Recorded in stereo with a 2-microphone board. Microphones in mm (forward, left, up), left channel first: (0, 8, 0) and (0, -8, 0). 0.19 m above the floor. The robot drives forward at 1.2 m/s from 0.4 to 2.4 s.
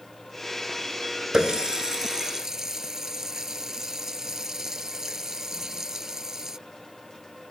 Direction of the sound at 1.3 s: 55° right (ahead or behind).